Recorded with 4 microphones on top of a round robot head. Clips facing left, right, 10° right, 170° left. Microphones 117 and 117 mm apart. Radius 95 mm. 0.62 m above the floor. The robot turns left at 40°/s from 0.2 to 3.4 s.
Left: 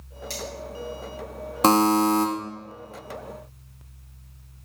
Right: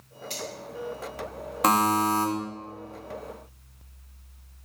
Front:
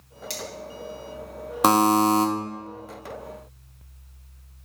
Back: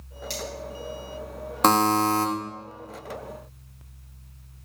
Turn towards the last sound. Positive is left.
turn(degrees=-5)